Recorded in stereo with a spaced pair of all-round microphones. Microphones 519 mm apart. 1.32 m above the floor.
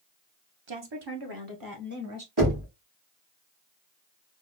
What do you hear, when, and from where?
0.7 s a woman speaking: 55° right (ahead or behind), 0.8 m; by 2.3 s 30° right (ahead or behind), 1.4 m
2.4 s knocking: 45° right (ahead or behind), 2.5 m